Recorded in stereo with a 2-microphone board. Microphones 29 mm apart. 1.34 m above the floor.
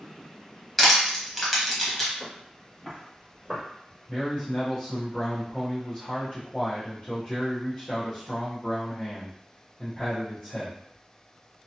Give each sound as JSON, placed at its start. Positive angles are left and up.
{"t": 0.8, "sound": "crushing", "side_deg": 10, "distance_m": 1.2}
{"t": 2.2, "sound": "footsteps", "side_deg": 45, "distance_m": 1.8}
{"t": 4.1, "sound": "a man speaking", "side_deg": 55, "distance_m": 0.9}